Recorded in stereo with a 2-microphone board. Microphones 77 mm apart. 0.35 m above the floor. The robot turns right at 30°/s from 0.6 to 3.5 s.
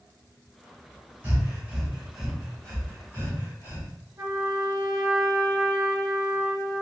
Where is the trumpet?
40° right (ahead or behind), 1.2 m.